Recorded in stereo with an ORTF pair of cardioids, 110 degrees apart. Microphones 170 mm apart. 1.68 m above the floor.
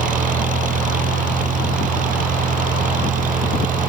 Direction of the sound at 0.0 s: 50° right.